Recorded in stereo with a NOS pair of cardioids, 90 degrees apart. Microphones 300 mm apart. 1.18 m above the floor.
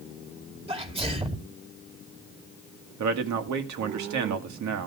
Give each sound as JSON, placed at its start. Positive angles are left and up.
{"t": 0.7, "sound": "a sneeze", "azimuth_deg": -20, "distance_m": 2.5}
{"t": 3.0, "sound": "a man speaking", "azimuth_deg": -70, "distance_m": 2.0}